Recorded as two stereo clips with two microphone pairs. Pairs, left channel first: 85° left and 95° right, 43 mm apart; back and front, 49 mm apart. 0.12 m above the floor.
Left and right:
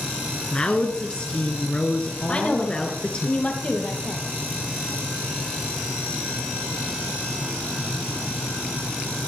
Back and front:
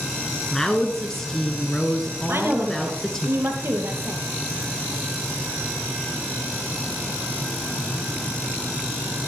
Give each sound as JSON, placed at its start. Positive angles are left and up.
{"t": 0.5, "sound": "a woman speaking", "azimuth_deg": 110, "distance_m": 1.3}
{"t": 2.3, "sound": "a woman speaking", "azimuth_deg": 25, "distance_m": 3.0}